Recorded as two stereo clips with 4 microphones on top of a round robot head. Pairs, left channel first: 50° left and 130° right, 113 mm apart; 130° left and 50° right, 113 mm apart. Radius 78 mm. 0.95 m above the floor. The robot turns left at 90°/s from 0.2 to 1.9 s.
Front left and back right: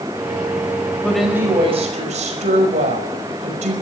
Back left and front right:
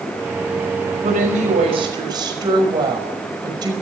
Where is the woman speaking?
25° right, 5.5 m; by 3.7 s 105° right, 5.5 m.